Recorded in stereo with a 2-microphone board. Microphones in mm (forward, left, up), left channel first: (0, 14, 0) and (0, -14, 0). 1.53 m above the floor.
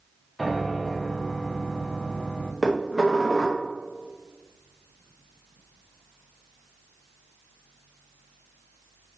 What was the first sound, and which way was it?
A piano, centre (ahead or behind).